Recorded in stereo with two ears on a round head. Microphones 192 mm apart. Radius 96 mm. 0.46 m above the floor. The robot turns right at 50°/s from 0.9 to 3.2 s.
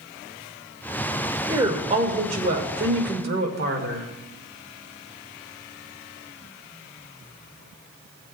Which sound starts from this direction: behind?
A woman speaking, at 1.5 s.